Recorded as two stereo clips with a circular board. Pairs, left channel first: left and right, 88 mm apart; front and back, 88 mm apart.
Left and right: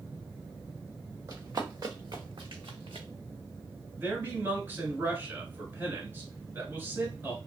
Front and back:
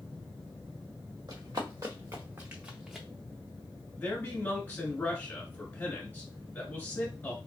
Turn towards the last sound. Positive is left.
turn(degrees=-50)